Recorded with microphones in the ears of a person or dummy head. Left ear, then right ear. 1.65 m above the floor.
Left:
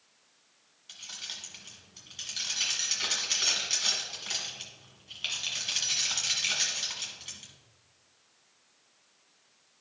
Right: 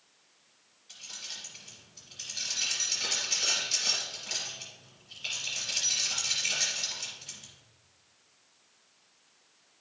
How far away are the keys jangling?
About 1.5 m.